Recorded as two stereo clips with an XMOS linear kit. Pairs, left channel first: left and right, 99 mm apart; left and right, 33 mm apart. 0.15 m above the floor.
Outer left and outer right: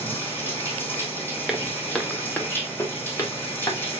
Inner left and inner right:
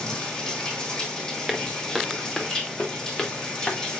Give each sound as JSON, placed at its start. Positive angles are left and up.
{"t": 0.0, "sound": "running water", "side_deg": 20, "distance_m": 3.0}
{"t": 1.5, "sound": "footsteps", "side_deg": 0, "distance_m": 1.7}